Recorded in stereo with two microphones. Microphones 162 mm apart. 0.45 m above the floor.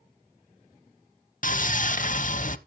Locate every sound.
1.4 s sawing: 55° left (ahead or behind), 0.6 m